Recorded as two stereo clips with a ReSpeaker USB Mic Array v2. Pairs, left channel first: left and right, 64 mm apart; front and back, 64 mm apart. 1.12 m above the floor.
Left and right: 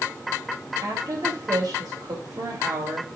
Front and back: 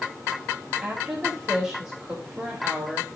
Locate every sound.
0.8 s a woman speaking: 115° right, 3.5 m